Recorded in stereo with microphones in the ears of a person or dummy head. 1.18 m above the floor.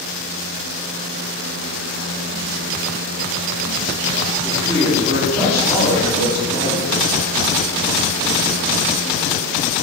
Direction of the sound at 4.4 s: 5° left (ahead or behind).